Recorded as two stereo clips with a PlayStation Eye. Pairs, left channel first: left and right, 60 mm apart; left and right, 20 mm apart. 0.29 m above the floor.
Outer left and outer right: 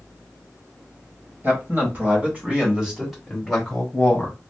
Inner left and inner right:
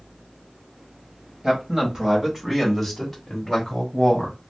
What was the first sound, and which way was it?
A man speaking, 40° right (ahead or behind).